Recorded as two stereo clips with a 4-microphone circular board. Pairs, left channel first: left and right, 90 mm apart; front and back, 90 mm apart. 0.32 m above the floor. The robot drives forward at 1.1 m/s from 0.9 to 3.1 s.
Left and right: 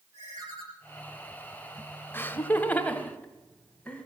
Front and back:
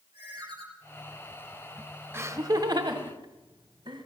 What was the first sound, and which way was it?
A ringtone, 145° right.